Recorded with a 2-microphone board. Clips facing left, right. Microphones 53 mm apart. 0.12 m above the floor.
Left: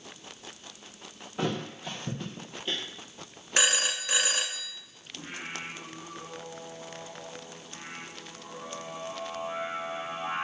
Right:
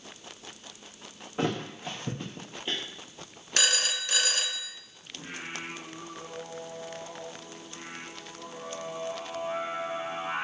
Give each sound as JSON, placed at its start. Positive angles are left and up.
{"t": 1.4, "sound": "a thud", "side_deg": -15, "distance_m": 1.8}
{"t": 3.6, "sound": "a phone ringing", "side_deg": 15, "distance_m": 0.8}
{"t": 5.1, "sound": "singing", "side_deg": 0, "distance_m": 4.5}